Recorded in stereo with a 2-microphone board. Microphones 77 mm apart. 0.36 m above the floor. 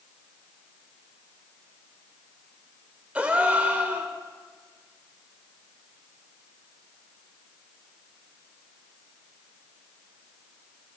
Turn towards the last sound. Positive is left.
turn(degrees=-20)  # may be behind; listen again after turning